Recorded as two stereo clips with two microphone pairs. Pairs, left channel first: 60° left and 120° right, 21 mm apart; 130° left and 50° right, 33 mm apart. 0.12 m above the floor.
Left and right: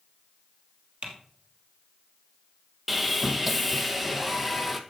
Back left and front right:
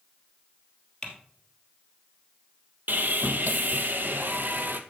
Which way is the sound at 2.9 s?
40° right.